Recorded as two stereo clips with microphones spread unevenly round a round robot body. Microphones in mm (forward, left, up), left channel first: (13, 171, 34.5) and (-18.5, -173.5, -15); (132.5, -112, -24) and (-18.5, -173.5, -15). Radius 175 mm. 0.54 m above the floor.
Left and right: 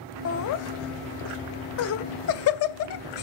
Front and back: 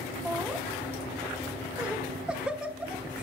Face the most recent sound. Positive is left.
turn(degrees=115)